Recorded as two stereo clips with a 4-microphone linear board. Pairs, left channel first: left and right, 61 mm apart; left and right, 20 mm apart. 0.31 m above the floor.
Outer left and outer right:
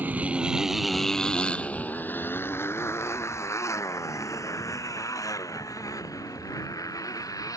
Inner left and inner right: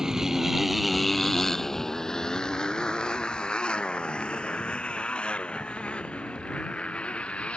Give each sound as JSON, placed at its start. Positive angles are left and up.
{"t": 0.0, "sound": "a motorcycle", "side_deg": -25}